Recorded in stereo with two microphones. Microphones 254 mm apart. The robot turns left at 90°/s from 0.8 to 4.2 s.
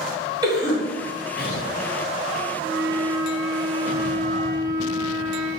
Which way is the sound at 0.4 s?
15° right (ahead or behind).